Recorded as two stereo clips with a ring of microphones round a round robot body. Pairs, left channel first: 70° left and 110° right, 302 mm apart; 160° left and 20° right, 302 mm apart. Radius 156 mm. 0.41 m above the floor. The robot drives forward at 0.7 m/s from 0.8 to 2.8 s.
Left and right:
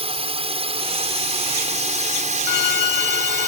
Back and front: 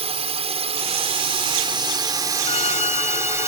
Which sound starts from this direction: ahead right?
A drone, at 0.0 s.